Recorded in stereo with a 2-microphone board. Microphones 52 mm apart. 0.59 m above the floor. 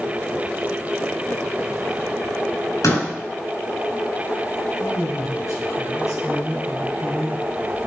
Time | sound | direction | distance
2.8 | a door slam | 80° left | 4.5 m
4.8 | a man speaking | 75° left (ahead or behind) | 3.5 m